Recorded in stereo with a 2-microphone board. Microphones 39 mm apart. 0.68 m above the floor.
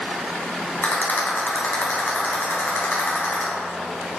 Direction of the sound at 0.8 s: 65° left (ahead or behind).